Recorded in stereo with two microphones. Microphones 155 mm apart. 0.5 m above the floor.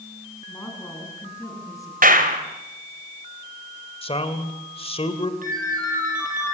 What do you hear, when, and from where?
0.5 s a woman speaking: 15° left (ahead or behind), 6.5 m; by 2.4 s 20° left (ahead or behind), 6 m
2.0 s a clap: 65° right (ahead or behind), 2.5 m
4.0 s a man speaking: 40° left (ahead or behind), 2.5 m
5.4 s a ringtone: 60° right (ahead or behind), 6.5 m